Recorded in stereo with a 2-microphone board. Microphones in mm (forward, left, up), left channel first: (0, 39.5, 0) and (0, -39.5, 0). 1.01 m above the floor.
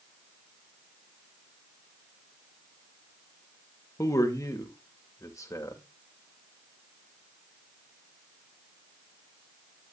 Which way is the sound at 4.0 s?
40° left (ahead or behind).